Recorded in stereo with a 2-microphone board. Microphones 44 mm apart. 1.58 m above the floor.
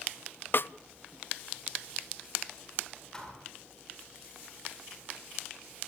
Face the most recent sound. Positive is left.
turn(degrees=10)  # may be behind; listen again after turning